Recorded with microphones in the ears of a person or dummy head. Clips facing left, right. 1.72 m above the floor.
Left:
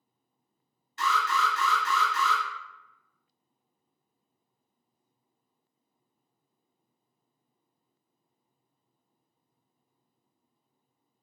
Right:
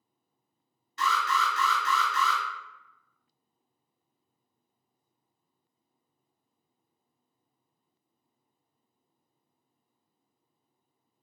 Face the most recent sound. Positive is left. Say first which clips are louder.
# even
turn(degrees=-70)  # may be behind; listen again after turning